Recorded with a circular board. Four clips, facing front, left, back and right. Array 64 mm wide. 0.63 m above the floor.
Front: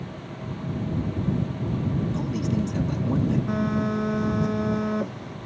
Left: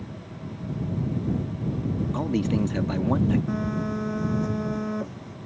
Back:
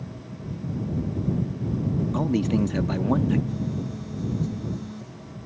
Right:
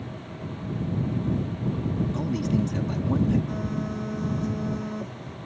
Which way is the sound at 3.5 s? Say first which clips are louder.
Left 3 dB, front 6 dB; 20° left.